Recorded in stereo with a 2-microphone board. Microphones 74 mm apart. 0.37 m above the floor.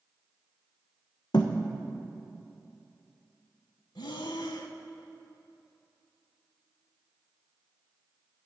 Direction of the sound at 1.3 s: 75° left (ahead or behind).